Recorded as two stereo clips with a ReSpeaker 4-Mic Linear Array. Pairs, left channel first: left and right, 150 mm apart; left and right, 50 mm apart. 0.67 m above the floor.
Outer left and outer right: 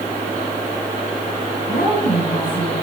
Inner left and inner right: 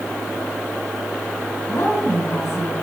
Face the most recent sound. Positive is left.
turn(degrees=75)  # may be behind; listen again after turning